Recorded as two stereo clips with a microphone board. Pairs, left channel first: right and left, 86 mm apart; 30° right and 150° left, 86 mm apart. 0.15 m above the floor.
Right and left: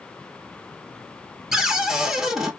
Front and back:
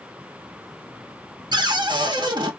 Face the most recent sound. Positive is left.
turn(degrees=175)